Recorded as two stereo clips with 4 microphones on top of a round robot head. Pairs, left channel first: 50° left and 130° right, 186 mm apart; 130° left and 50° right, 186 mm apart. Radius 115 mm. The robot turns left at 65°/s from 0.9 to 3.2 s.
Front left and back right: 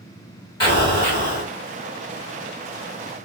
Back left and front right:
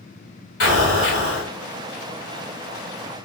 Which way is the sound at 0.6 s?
115° left.